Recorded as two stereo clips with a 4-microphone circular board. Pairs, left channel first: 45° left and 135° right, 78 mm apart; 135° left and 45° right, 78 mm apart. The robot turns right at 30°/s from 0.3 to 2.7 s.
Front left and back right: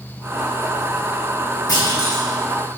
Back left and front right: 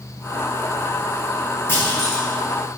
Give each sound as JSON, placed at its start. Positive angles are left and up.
{"t": 1.7, "sound": "a clunk", "azimuth_deg": 75, "distance_m": 2.5}